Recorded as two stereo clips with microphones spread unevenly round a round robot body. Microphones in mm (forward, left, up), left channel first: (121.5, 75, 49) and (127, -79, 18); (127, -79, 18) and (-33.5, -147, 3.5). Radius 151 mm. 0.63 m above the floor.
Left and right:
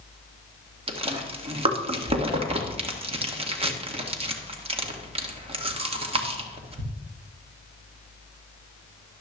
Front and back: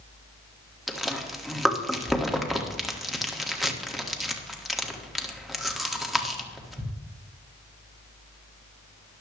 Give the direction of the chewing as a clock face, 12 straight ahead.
2 o'clock.